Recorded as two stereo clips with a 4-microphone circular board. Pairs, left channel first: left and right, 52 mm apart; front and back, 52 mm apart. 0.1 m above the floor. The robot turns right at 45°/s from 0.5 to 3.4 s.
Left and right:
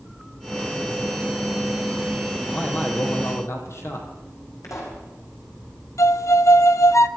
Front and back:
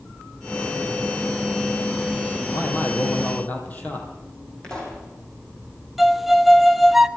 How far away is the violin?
About 0.5 m.